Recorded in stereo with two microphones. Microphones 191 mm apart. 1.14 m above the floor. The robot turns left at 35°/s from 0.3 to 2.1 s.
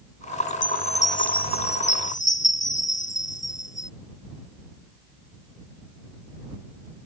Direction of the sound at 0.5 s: 160° left.